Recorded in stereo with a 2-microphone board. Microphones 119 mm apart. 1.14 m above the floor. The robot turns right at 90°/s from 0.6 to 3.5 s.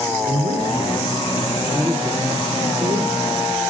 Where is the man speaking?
75° left, 3.5 m; by 3.3 s 40° right, 3.5 m.